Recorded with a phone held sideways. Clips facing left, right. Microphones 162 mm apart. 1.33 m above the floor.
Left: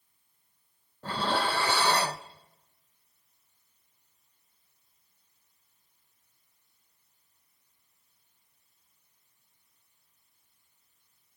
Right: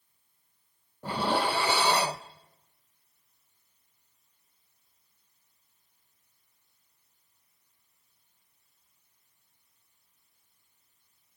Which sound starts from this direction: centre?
Dishes clattering, at 1.0 s.